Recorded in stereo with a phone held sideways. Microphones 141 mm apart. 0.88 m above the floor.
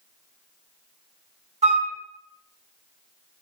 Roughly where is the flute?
Right.